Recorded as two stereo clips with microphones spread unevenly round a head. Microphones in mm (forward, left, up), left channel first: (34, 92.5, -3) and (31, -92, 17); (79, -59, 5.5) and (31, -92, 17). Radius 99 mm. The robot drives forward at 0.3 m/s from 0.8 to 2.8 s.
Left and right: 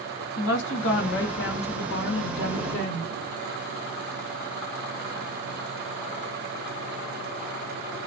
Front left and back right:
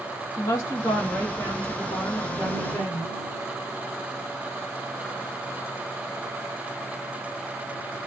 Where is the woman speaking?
80° left, 1.1 m; by 3.1 s 110° left, 1.2 m.